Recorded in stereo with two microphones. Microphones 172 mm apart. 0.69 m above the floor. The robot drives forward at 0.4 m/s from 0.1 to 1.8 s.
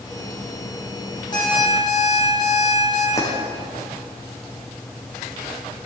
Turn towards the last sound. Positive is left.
turn(degrees=20)  # may be behind; listen again after turning